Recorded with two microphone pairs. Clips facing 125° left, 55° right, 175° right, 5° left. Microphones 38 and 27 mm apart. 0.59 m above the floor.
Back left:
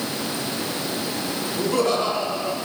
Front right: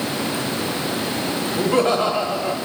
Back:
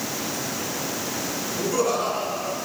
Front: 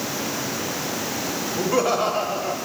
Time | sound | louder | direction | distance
1.6 | laughter | front right 3 dB, front 2 dB | 25° right | 1.4 m